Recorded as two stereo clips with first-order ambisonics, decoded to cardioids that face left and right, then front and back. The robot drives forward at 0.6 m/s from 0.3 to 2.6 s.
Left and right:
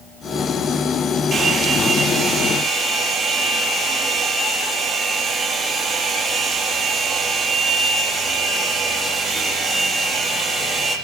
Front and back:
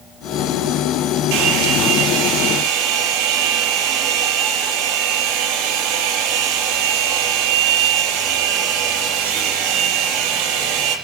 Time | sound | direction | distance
1.3 | a hair dryer | 165° right | 5 m